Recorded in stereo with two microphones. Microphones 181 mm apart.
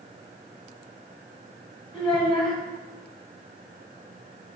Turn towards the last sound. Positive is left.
turn(degrees=25)  # may be behind; listen again after turning